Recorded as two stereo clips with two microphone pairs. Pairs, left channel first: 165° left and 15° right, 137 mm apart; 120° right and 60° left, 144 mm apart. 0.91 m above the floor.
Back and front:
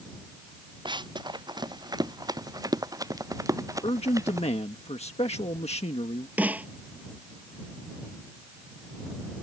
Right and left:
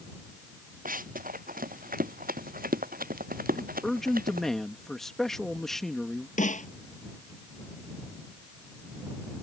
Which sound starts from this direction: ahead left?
Running footsteps, at 0.8 s.